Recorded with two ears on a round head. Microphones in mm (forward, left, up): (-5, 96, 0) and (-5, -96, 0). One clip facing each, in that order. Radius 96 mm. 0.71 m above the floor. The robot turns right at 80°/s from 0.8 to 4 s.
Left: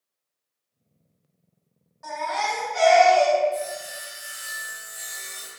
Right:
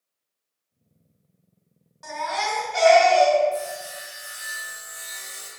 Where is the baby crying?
135° right, 1.8 m; by 3.4 s 25° right, 1.8 m.